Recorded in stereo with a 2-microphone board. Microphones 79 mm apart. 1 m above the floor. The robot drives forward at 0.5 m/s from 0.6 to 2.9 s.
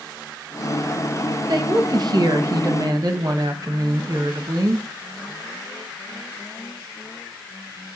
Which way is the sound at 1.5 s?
50° right (ahead or behind).